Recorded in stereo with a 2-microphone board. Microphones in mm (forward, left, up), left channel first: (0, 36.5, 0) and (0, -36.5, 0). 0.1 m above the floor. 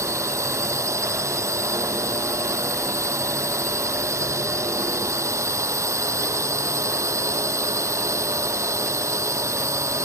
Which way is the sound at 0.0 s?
45° right (ahead or behind).